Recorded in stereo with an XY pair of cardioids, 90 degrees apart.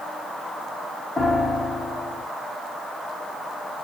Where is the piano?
25° left, 1.9 m.